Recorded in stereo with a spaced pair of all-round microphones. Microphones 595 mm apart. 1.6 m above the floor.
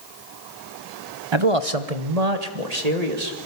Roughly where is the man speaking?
Right.